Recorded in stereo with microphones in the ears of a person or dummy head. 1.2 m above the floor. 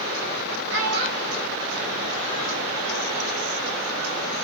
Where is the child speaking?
65° right (ahead or behind), 1.0 m; by 2.6 s 70° right (ahead or behind), 1.6 m.